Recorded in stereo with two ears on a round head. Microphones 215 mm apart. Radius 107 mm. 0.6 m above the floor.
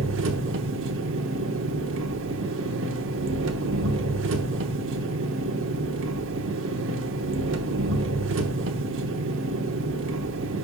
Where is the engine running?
60° right (ahead or behind), 0.9 m.